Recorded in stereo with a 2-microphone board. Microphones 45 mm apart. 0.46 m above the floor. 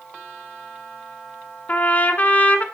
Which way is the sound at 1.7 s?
35° left (ahead or behind).